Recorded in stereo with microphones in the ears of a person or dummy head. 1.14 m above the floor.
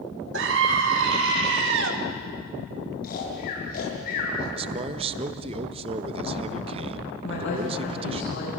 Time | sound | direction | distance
0.3 | a scream | 60° right (ahead or behind) | 3 m
3.0 | snoring | 50° left (ahead or behind) | 7.5 m
4.5 | a man speaking | 30° right (ahead or behind) | 1.4 m
7.2 | a woman speaking | 70° left (ahead or behind) | 9 m